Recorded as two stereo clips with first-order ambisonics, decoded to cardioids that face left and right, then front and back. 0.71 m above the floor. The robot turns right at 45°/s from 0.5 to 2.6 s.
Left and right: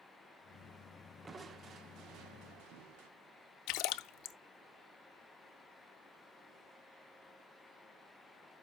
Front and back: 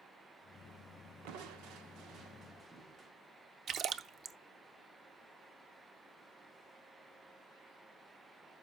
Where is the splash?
120° left, 0.5 m.